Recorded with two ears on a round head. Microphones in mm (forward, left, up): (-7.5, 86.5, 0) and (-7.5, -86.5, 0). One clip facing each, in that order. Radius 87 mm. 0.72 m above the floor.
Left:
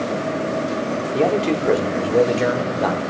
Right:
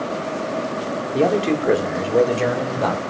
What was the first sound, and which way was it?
A man speaking, 5° right (ahead or behind).